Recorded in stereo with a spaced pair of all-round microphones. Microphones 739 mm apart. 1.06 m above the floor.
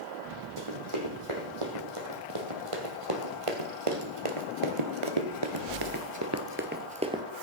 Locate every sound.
0.6 s running footsteps: 40° right (ahead or behind), 3.5 m; by 7.2 s 5° right (ahead or behind), 1.5 m